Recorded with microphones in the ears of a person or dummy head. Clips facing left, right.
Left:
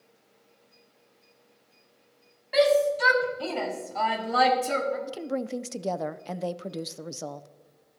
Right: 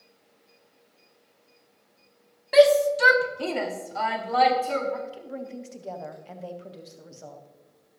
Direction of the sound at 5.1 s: 75° left (ahead or behind).